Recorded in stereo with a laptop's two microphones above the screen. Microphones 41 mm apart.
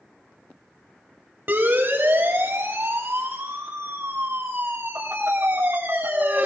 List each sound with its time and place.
1.5 s a siren: 55° right (ahead or behind), 2.5 m